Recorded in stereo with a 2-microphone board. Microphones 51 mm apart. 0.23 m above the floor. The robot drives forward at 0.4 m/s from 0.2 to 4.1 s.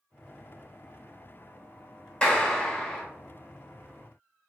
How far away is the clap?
About 1.0 m.